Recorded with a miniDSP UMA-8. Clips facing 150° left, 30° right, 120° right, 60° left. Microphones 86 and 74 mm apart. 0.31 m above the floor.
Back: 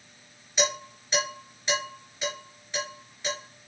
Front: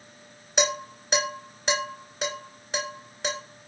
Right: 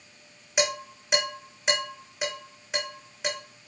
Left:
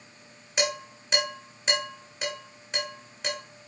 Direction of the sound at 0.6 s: 35° right.